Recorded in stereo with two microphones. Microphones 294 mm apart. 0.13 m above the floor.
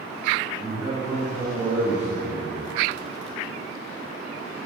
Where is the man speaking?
10° right (ahead or behind), 1.8 m.